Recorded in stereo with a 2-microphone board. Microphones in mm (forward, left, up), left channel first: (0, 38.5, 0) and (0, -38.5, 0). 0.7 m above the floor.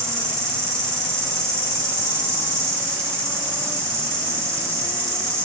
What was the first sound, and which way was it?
An insect, 35° right (ahead or behind).